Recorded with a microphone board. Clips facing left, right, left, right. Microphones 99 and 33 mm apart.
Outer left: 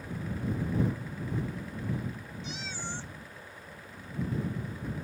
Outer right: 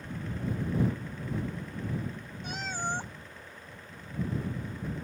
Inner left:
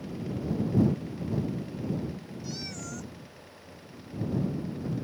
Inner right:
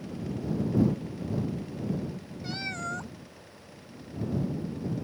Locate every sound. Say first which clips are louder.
2.4 s a cat meowing: outer right 7 dB, inner right 7 dB; 50° right (ahead or behind)